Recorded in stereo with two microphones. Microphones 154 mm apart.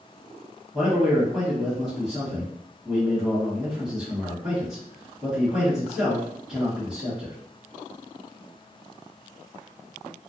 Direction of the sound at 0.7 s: 5° right (ahead or behind).